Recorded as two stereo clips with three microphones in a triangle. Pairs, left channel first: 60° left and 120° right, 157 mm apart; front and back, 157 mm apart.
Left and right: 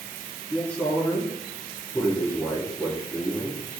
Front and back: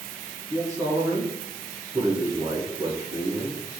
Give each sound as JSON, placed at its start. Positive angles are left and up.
{"t": 0.5, "sound": "a man speaking", "azimuth_deg": 130, "distance_m": 1.2}